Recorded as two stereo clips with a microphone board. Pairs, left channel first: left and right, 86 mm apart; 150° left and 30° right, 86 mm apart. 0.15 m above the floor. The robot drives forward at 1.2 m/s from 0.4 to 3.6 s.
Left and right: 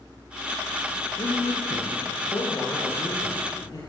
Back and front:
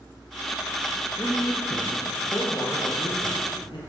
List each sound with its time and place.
1.2 s a man speaking: 85° left, 3 m; by 3.8 s 135° left, 4 m